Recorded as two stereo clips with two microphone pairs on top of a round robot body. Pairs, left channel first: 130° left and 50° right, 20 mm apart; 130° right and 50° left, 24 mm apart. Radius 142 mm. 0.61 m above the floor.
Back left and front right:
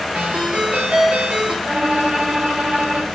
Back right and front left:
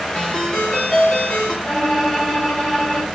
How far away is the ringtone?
About 3.5 m.